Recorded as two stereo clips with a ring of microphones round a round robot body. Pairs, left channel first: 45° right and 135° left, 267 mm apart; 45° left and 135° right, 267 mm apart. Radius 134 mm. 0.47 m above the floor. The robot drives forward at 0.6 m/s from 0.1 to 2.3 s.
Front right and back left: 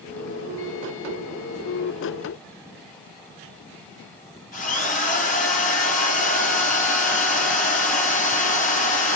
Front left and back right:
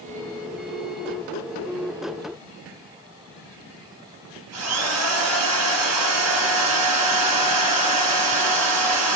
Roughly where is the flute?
I don't hear a flute.